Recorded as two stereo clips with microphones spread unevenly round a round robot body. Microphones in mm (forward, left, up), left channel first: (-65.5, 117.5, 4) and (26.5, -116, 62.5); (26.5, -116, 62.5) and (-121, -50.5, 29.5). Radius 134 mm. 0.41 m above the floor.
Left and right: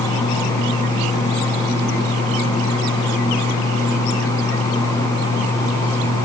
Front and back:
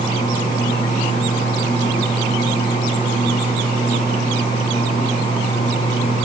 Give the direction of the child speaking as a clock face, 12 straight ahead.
I don't hear a child speaking.